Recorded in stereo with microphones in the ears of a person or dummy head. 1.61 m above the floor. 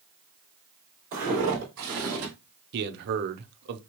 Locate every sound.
1.1 s footsteps: 40° right (ahead or behind), 3 m; by 2.3 s 50° right (ahead or behind), 3 m
2.7 s a man speaking: 60° right (ahead or behind), 0.7 m